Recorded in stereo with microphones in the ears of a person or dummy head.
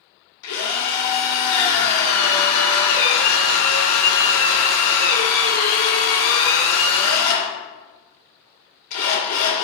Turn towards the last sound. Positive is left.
turn(degrees=85)